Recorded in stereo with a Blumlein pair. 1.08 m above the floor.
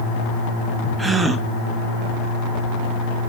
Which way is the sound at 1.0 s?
10° right.